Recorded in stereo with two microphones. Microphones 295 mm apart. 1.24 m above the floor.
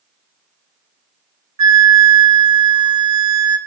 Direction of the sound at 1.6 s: 60° right (ahead or behind).